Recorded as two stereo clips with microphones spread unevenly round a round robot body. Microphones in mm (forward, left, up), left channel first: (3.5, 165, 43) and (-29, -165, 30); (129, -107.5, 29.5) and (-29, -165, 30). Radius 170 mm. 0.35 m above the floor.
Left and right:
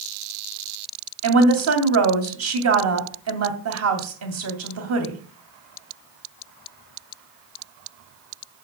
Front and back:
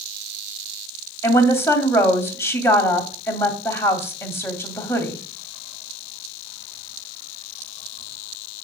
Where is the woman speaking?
55° right, 2.5 m.